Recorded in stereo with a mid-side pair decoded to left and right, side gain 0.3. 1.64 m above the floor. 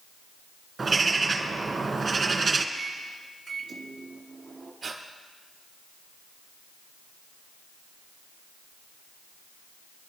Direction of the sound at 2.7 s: 60° right.